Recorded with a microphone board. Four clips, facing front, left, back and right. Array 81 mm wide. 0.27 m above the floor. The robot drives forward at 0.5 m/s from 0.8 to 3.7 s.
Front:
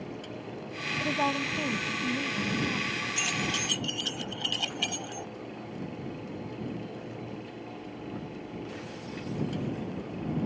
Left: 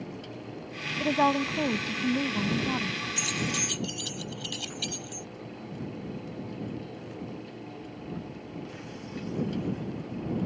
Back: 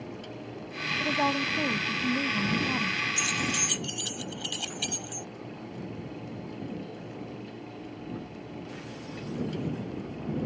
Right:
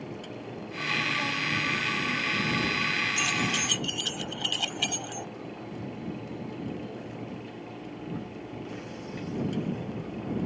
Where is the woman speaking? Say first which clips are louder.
Left 11 dB, back 1 dB; 90° left; by 3.0 s 120° left.